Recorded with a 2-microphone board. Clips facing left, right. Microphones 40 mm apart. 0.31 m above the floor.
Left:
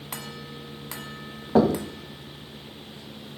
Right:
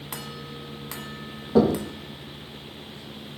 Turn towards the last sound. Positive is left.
turn(degrees=55)  # may be behind; listen again after turning